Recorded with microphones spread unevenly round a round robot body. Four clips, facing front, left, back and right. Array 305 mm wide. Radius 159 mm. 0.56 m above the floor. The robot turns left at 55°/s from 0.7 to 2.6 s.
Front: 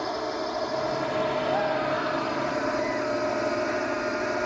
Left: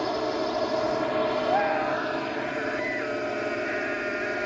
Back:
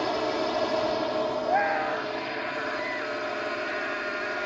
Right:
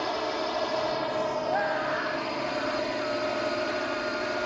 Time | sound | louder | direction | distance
0.0 | a drone | left 2 dB, back 2 dB | 115° left | ?
1.5 | a scream | left 3 dB, even | 165° left | ?